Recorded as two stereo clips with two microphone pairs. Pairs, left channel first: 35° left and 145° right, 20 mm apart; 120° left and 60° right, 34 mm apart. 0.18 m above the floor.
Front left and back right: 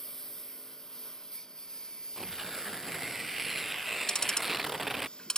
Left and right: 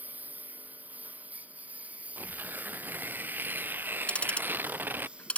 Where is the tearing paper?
60° right.